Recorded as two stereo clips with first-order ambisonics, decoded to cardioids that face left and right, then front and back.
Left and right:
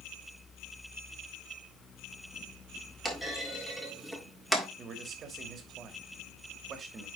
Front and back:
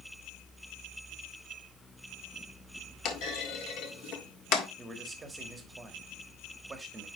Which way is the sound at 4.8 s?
115° right.